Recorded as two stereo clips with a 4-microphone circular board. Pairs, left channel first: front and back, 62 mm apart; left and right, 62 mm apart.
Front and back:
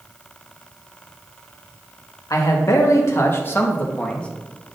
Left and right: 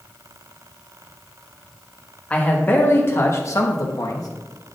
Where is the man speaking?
25° left, 1.2 m; by 4.3 s 70° left, 1.2 m.